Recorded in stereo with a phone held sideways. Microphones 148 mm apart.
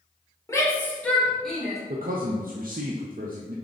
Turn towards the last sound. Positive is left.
turn(degrees=-75)  # may be behind; listen again after turning